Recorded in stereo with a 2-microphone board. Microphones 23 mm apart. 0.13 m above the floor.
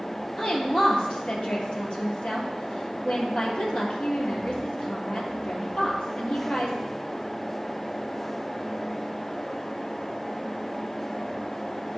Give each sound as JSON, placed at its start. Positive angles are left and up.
{"t": 0.4, "sound": "a woman speaking", "side_deg": 55, "distance_m": 2.5}